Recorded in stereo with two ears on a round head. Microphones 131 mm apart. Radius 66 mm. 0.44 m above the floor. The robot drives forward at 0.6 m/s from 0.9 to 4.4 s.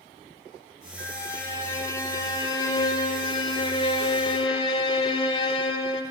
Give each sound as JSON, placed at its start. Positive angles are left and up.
{"t": 1.0, "sound": "a violin", "side_deg": 20, "distance_m": 3.0}